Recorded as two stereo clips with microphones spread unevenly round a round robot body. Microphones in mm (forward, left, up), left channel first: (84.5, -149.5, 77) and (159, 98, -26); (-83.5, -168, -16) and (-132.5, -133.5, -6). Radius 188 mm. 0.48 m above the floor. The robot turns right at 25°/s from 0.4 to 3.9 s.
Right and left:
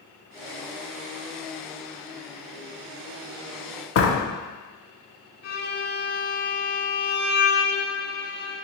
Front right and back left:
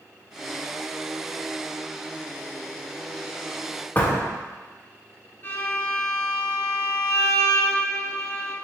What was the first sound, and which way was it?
A door slam, 60° right.